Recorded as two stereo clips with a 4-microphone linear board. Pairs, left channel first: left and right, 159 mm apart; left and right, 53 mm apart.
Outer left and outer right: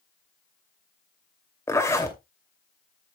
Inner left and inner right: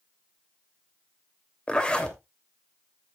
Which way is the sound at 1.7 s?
15° left (ahead or behind).